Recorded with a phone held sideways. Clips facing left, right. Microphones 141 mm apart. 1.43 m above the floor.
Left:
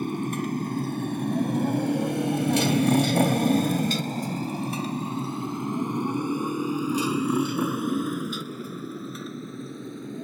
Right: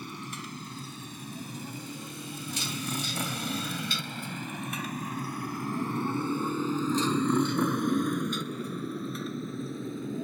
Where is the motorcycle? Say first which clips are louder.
Left 13 dB; 50° left (ahead or behind); by 10.3 s centre (ahead or behind).